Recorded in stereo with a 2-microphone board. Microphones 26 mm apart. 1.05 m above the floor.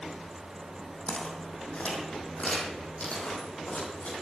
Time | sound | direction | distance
1.1 | footsteps | 45° left (ahead or behind) | 2.5 m